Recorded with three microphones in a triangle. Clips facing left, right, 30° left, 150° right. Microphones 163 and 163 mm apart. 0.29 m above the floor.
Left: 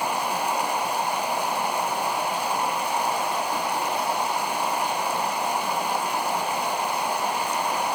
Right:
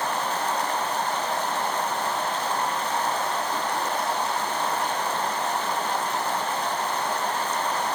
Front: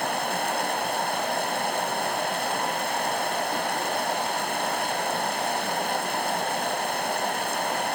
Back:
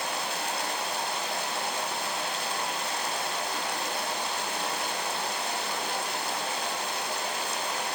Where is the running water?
15° left, 1.1 m.